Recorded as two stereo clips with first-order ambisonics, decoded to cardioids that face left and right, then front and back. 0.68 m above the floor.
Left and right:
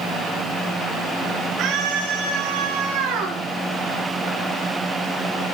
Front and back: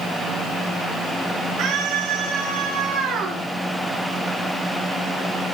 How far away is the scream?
About 7.5 m.